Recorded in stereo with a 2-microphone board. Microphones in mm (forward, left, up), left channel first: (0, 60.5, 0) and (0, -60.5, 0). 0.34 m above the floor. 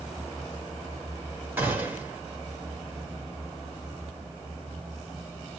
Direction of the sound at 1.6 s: 15° right (ahead or behind).